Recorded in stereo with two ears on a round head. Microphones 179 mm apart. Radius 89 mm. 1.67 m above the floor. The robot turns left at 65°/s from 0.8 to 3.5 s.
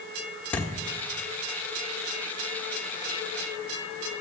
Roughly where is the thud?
Centre.